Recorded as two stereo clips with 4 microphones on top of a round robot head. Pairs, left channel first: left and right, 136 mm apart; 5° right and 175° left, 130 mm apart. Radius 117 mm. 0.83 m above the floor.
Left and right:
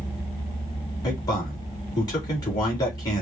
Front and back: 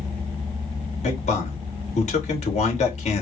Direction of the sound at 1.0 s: 25° left.